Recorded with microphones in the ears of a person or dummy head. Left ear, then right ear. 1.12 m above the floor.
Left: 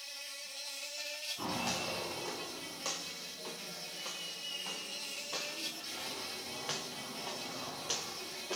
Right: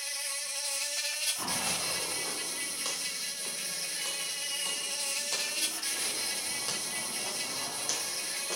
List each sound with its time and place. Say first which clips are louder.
0.0 s an insect: right 8 dB; 55° right (ahead or behind), 0.7 m
1.4 s footsteps: right 4 dB; 5° right (ahead or behind), 2.5 m; by 8.6 s 40° right (ahead or behind), 2.5 m